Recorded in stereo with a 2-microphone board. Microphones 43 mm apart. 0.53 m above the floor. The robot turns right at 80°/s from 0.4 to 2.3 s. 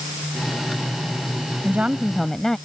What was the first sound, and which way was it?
A woman speaking, 40° right.